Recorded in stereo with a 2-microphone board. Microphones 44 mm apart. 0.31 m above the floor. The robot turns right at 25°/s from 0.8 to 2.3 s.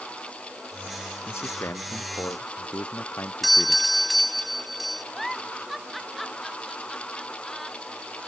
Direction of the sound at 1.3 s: 85° left.